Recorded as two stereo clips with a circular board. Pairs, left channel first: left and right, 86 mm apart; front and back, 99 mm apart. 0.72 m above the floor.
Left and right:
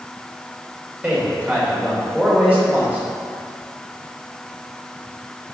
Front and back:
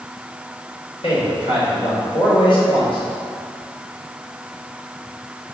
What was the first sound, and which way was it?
A man speaking, 15° right.